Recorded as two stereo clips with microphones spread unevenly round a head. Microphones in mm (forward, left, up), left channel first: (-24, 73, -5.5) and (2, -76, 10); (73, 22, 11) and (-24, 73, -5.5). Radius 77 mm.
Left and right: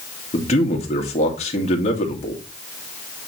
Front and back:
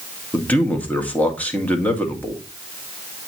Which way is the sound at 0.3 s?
45° left.